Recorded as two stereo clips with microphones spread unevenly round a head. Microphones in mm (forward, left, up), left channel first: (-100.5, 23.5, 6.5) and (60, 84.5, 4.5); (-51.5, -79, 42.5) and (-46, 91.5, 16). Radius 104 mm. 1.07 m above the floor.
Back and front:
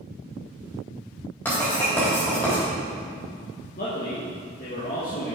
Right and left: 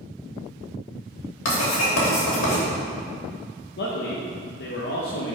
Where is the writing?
80° right, 3 m.